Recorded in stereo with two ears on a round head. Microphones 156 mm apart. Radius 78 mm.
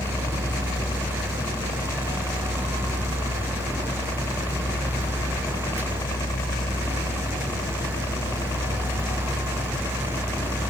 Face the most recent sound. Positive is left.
turn(degrees=15)  # may be behind; listen again after turning